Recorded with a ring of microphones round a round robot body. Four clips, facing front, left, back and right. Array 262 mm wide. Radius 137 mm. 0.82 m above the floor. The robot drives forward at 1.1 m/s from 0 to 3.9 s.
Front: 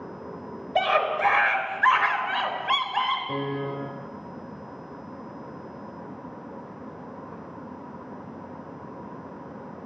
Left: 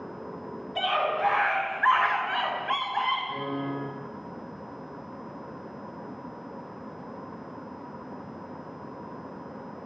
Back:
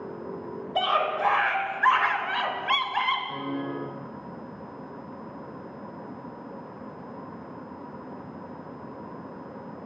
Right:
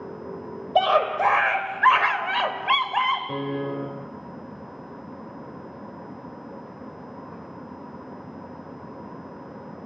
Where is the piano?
50° right, 3 m; by 4.0 s 65° right, 2.5 m.